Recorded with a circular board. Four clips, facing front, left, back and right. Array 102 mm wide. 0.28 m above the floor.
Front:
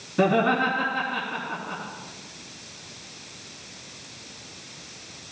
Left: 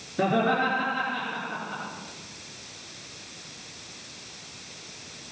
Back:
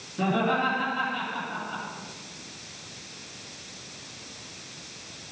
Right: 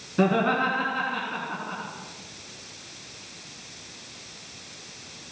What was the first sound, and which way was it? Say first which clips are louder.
Laughter: right 1 dB, front 4 dB; 50° right.